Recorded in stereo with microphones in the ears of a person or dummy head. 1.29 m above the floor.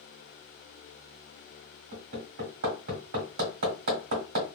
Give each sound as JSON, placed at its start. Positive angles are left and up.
{"t": 1.9, "sound": "hammering", "side_deg": -50, "distance_m": 1.7}